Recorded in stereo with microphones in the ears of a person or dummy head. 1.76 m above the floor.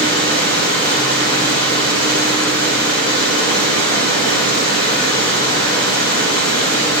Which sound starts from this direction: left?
Running water, at 0.0 s.